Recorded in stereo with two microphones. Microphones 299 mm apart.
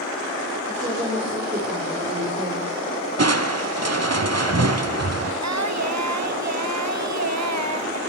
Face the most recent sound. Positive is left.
turn(degrees=-65)  # may be behind; listen again after turning